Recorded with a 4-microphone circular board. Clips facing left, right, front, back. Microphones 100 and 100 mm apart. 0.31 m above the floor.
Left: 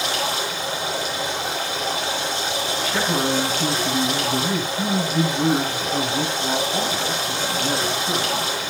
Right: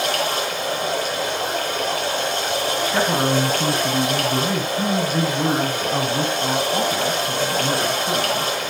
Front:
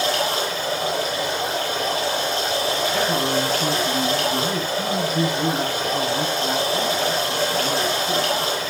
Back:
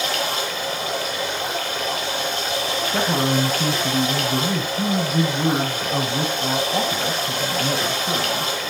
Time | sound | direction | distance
0.0 | running water | 55° right | 7.5 m
2.8 | a man speaking | 150° right | 2 m